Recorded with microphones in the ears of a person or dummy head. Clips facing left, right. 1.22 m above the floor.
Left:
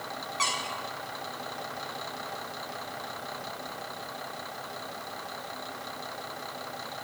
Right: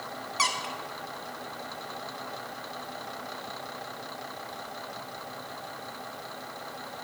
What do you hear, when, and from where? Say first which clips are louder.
0.4 s a squeak: right 3 dB; 50° right (ahead or behind), 0.6 m